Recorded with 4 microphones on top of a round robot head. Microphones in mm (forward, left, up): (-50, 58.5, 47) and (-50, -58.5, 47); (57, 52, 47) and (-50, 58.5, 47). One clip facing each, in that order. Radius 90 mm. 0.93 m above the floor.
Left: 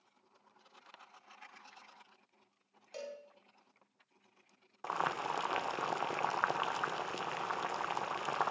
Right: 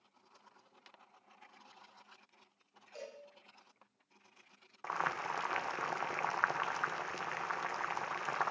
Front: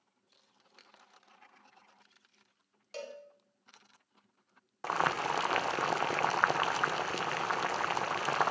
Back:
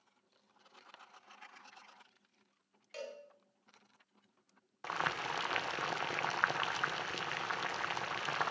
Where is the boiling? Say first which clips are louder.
Left 2 dB, front 7 dB; 25° left, 0.5 m.